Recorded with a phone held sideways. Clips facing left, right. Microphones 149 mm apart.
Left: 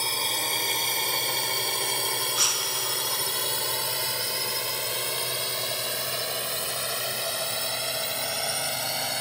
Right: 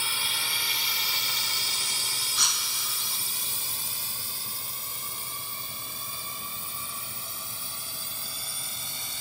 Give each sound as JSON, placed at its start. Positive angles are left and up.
{"t": 0.0, "sound": "a drone", "side_deg": 40}
{"t": 2.4, "sound": "breaking glass", "side_deg": 0}